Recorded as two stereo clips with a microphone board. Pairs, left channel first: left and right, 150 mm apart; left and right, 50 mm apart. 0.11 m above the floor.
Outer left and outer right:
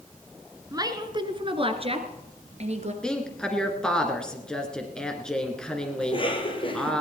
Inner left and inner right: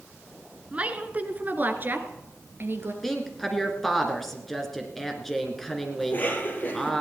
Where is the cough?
35° left (ahead or behind), 3.5 m.